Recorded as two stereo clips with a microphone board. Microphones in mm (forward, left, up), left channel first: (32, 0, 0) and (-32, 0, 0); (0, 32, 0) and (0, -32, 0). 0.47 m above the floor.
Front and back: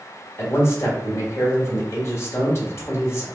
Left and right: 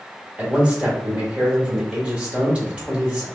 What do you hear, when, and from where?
0.4 s a man speaking: 20° right, 1.5 m